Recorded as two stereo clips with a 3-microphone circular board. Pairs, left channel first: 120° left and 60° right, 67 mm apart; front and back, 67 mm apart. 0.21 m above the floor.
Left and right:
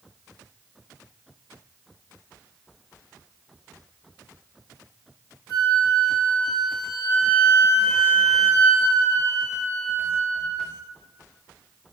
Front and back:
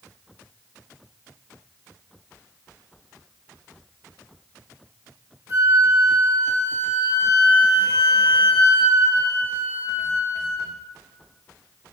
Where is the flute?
150° left, 1.6 m.